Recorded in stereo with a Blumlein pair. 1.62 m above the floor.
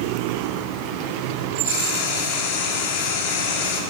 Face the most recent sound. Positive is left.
turn(degrees=50)